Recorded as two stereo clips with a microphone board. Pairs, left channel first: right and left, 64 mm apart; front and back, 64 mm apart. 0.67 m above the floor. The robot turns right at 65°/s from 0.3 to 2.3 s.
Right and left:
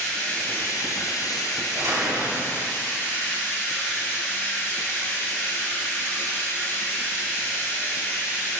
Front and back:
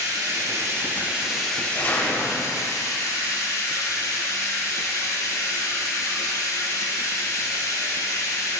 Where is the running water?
160° right, 2.5 m; by 8.6 s 30° right, 2.5 m.